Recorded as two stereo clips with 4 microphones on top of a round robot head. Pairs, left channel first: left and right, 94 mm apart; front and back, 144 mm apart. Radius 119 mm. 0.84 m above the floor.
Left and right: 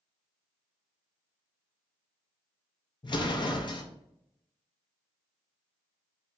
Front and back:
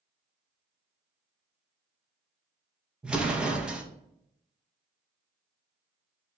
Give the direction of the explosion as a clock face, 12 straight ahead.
9 o'clock.